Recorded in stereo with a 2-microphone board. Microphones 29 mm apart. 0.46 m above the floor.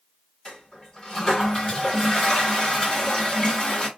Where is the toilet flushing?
20° left (ahead or behind), 1.4 m.